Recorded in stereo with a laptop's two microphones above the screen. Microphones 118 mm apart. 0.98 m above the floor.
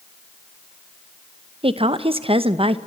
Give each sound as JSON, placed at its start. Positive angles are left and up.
{"t": 1.6, "sound": "a woman speaking", "side_deg": -50, "distance_m": 0.8}